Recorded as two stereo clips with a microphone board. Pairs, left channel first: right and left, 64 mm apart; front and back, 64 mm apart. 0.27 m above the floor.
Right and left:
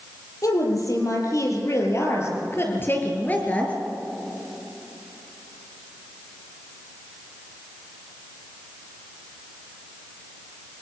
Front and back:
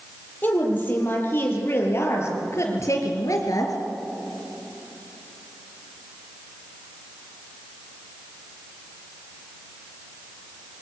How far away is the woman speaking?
About 7 m.